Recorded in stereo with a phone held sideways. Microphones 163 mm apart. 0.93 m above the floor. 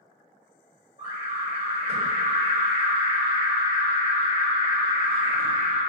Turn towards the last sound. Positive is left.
turn(degrees=-40)  # may be behind; listen again after turning